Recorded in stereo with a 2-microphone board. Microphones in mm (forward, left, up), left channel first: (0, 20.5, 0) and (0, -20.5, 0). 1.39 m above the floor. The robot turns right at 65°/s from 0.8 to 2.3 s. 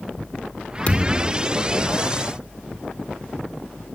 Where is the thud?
145° left, 1.7 m; by 1.4 s straight behind, 1.7 m.